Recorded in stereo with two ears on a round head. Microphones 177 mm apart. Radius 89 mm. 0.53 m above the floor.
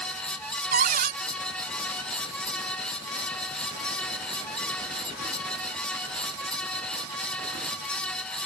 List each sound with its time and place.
0.7 s a cupboard door: 45° right (ahead or behind)